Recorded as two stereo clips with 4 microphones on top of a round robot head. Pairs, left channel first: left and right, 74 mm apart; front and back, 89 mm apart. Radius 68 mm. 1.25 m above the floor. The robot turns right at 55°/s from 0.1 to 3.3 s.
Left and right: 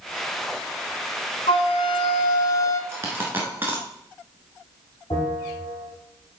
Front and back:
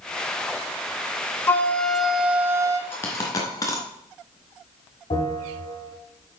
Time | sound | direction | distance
1.5 | a flute | 60° left | 1.0 m
2.9 | a dropped coin | 55° right | 1.3 m
5.1 | a bell | 30° left | 5 m